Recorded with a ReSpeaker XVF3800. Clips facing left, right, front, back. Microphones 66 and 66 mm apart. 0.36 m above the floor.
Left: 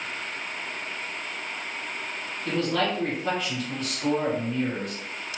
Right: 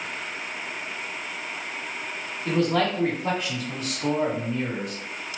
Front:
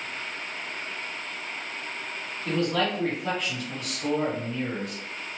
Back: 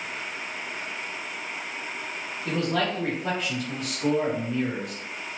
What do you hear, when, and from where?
2.5 s a man speaking: 140° right, 1.1 m